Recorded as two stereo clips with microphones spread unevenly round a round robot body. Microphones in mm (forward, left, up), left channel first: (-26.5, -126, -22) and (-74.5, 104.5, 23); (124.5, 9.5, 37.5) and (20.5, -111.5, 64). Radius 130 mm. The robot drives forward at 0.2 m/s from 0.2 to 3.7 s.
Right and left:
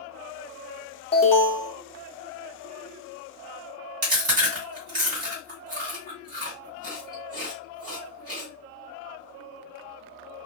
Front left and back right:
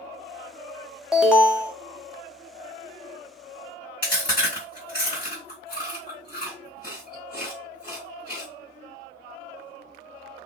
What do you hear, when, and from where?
1.1 s an alarm: 35° right, 0.7 m; by 1.7 s 45° right, 0.6 m
4.0 s chewing: 130° left, 1.7 m